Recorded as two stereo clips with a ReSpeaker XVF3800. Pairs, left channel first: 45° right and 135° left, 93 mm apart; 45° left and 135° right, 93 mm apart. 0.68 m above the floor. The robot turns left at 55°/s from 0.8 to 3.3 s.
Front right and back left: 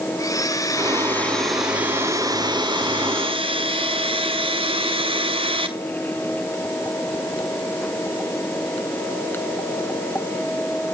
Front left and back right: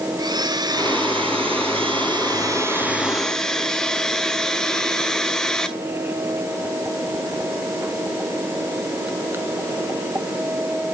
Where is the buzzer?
I don't hear a buzzer.